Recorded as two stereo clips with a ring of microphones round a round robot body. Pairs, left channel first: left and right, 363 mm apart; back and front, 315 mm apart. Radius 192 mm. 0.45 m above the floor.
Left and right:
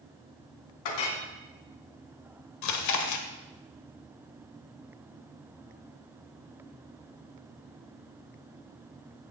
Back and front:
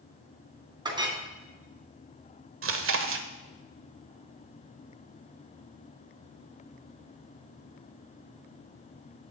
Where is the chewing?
50° left, 1.3 m.